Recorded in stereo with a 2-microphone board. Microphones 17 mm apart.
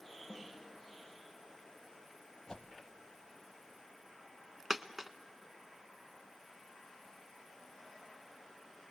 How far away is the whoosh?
About 1.0 m.